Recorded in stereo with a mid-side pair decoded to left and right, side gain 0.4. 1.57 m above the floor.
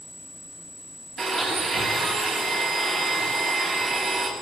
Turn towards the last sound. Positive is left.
turn(degrees=-45)